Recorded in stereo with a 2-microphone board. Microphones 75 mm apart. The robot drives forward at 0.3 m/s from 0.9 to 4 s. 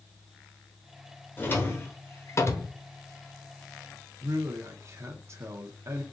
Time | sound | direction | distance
1.4 | a drawer | 25° left (ahead or behind) | 1.0 m
4.2 | a man speaking | 40° right (ahead or behind) | 0.7 m